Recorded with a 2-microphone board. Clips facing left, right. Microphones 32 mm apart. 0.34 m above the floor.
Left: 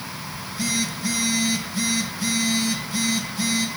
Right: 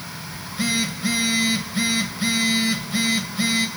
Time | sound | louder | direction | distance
0.3 | a phone buzzing | right 3 dB | 30° right (ahead or behind) | 1.5 m